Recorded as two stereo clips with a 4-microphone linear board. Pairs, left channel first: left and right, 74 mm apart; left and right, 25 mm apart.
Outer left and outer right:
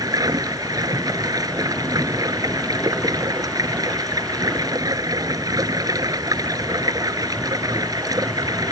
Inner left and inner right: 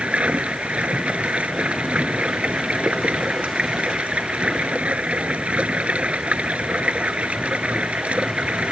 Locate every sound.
0.0 s running water: 55° right (ahead or behind)